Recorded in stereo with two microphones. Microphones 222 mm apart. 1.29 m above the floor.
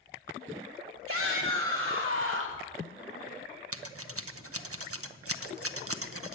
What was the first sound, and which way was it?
A shout, 80° right.